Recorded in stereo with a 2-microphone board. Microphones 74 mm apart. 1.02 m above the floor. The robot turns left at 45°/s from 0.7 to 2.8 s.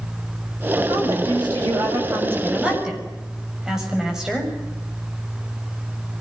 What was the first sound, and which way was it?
A woman speaking, 85° right.